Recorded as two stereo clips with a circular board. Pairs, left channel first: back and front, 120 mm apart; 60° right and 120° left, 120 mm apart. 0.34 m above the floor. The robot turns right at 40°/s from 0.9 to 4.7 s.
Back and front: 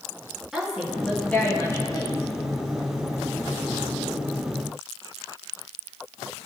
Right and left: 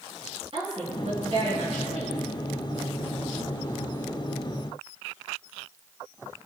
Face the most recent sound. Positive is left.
turn(degrees=-120)